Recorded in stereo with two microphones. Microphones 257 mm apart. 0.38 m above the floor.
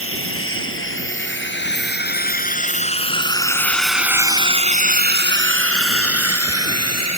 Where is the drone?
55° left (ahead or behind); by 7.2 s 70° right (ahead or behind).